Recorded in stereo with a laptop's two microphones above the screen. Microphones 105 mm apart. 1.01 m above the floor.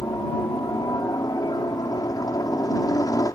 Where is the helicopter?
35° left (ahead or behind).